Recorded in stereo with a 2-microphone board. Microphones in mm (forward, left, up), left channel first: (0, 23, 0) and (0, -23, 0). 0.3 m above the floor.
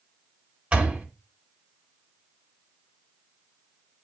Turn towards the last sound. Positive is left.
turn(degrees=-30)  # may be behind; listen again after turning